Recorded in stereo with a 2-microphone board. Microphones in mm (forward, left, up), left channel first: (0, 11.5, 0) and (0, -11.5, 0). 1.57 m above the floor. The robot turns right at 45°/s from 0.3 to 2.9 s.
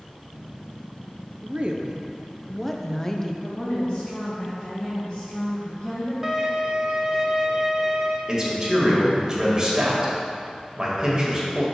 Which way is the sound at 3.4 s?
15° left (ahead or behind).